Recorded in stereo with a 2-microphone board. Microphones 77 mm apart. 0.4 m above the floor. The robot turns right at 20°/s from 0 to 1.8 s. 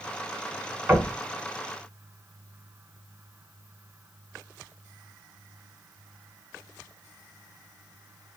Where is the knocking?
20° right (ahead or behind), 1.6 m.